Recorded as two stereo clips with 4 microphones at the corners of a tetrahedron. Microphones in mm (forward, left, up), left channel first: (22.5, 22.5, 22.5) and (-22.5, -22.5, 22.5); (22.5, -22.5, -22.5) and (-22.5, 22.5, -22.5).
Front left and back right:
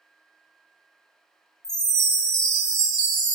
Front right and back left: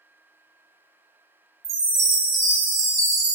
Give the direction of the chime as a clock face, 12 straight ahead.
8 o'clock.